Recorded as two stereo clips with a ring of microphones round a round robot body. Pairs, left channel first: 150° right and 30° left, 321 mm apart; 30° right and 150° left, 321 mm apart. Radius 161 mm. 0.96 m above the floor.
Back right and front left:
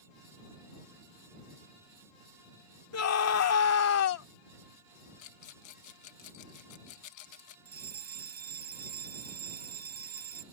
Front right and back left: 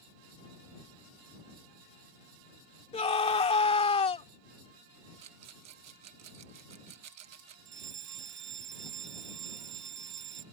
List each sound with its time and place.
2.9 s a scream: 105° right
5.2 s a rattle: 175° right
7.7 s a fire alarm: 95° left